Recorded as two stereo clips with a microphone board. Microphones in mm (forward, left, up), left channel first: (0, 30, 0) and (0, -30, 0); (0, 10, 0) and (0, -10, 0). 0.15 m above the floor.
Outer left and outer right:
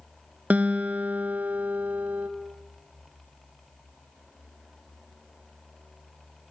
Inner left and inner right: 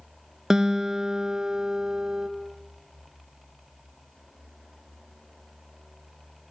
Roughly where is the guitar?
Right.